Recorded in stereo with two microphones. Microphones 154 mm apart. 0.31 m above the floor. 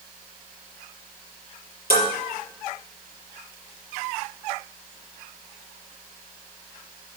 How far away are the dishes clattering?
About 5 m.